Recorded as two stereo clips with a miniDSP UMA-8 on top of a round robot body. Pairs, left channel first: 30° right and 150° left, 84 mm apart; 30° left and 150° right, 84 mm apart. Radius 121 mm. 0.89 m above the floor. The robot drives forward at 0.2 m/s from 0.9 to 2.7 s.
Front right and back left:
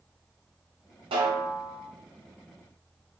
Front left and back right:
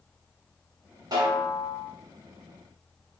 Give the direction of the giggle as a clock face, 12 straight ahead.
No giggle in this recording.